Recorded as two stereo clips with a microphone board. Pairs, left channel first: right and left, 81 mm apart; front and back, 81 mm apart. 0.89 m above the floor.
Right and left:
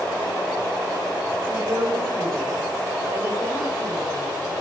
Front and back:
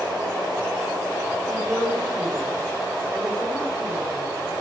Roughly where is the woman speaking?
Left.